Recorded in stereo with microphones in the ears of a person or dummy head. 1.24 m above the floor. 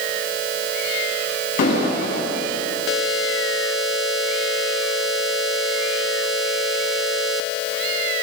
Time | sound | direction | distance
1.6 | an explosion | 50° left (ahead or behind) | 10 m